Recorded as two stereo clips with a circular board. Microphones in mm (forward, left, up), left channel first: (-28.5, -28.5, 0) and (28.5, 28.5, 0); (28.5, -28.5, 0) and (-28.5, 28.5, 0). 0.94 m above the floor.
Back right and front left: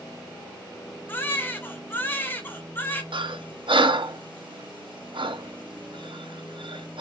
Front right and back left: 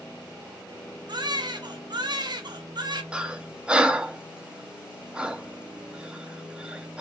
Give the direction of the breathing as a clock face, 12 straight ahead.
10 o'clock.